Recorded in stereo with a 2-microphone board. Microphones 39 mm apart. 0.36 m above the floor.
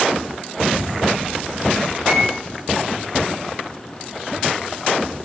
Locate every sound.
2.0 s a microwave: 20° right (ahead or behind), 0.6 m